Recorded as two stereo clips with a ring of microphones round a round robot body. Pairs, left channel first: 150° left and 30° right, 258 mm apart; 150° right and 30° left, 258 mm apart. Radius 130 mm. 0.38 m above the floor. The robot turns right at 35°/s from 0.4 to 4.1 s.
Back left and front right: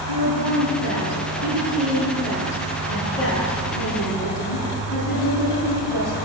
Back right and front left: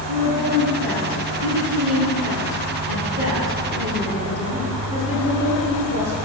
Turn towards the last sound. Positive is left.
turn(degrees=95)